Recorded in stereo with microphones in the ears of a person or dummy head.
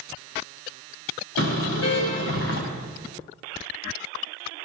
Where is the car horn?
85° left, 5.5 m.